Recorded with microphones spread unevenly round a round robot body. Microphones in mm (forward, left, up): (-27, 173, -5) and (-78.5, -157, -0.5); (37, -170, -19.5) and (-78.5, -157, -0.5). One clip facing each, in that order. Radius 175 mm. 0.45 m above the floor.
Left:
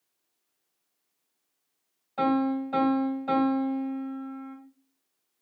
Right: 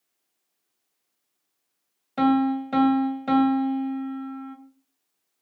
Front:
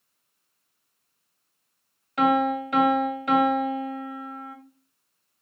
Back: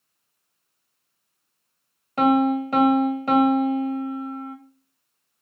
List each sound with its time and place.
2.2 s a piano: 130° right, 2.5 m